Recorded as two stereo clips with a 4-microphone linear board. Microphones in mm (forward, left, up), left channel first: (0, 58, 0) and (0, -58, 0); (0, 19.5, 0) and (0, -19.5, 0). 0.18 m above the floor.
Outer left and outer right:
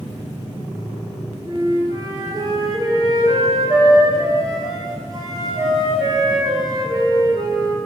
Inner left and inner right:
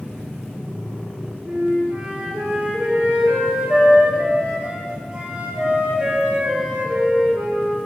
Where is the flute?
40° right (ahead or behind), 1.1 m.